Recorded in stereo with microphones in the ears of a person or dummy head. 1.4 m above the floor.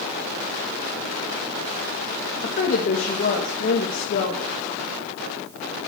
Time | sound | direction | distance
2.4 | a woman speaking | 45° left (ahead or behind) | 2 m